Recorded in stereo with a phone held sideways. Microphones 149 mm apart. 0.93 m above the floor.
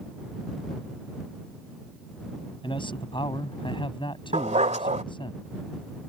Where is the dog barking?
50° right (ahead or behind).